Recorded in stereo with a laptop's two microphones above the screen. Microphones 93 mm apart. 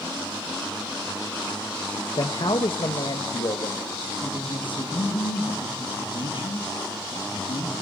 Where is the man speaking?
55° left (ahead or behind), 1.3 m; by 4.1 s 60° left (ahead or behind), 2.5 m.